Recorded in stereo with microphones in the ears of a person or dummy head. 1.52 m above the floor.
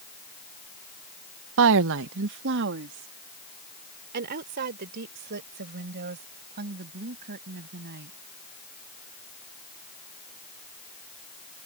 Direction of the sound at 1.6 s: 75° right (ahead or behind).